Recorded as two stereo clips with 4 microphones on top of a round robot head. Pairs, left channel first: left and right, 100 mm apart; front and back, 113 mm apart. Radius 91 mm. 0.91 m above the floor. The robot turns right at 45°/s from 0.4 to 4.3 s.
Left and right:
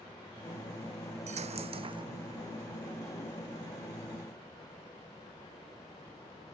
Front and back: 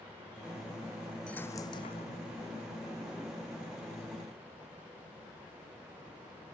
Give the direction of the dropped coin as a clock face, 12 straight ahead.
3 o'clock.